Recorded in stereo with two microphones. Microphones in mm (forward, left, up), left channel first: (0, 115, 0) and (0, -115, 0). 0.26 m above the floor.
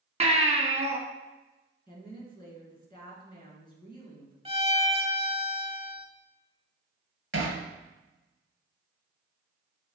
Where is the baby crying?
30° right (ahead or behind), 1.7 m.